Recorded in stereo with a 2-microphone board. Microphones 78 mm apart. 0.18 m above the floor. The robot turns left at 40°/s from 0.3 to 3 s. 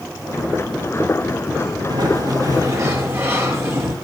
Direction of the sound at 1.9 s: 100° right.